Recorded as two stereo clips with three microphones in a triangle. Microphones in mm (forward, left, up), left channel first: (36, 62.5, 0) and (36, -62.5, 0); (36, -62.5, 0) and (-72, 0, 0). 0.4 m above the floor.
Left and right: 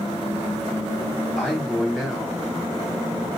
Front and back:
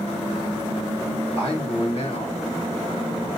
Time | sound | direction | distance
1.4 | a man speaking | 5° left | 3 m